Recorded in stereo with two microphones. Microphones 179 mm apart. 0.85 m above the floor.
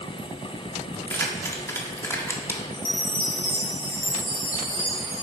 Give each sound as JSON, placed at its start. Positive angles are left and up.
{"t": 0.9, "sound": "keys jangling", "side_deg": 15, "distance_m": 1.5}
{"t": 2.7, "sound": "a chime", "side_deg": 50, "distance_m": 3.0}